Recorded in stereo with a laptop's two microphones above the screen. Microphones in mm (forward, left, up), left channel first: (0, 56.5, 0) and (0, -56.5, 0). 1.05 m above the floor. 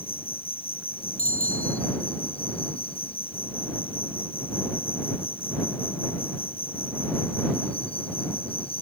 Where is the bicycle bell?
75° left (ahead or behind).